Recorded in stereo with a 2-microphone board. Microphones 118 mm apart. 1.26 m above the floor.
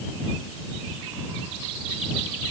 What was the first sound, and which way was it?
Only background noise.